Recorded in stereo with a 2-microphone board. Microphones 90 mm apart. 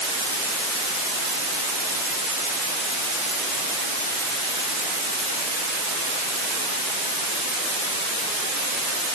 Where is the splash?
No splash in this recording.